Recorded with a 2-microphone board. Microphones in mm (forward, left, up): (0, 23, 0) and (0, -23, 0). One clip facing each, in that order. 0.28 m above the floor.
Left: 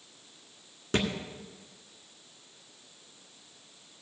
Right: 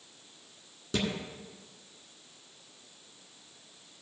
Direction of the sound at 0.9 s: 55° left (ahead or behind).